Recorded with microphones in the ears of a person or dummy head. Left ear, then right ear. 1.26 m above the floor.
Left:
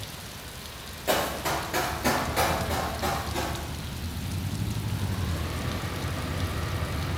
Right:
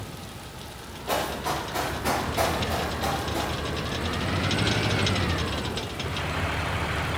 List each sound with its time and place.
1.1 s running footsteps: 40° left (ahead or behind), 1.8 m; by 3.5 s 15° right (ahead or behind), 1.3 m